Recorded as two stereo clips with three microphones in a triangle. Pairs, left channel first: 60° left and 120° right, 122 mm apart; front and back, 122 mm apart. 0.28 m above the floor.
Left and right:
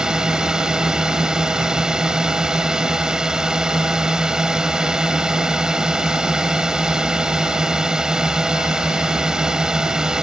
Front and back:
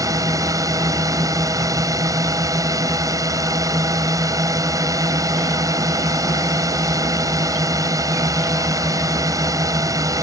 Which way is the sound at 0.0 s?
160° left.